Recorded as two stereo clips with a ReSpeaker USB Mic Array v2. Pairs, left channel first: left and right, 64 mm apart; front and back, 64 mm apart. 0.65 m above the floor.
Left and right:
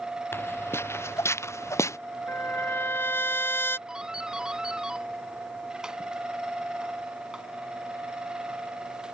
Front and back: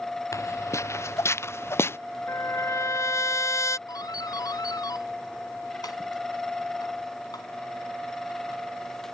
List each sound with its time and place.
0.3 s footsteps: 35° left; by 2.0 s 50° left
2.3 s a trumpet: 35° left
3.9 s a doorbell: 10° right